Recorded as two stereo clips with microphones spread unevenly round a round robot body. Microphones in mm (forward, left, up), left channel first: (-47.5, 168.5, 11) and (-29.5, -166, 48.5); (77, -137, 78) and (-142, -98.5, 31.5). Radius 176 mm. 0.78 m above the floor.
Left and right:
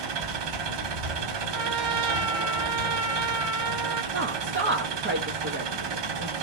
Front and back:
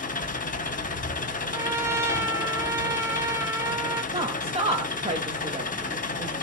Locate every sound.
0.0 s an engine running: 65° right, 1.0 m
1.5 s a trumpet: 120° right, 1.0 m
4.1 s a woman speaking: 145° right, 1.1 m